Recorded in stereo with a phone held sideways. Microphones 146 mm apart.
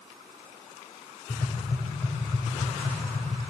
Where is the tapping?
65° left (ahead or behind), 6.5 m.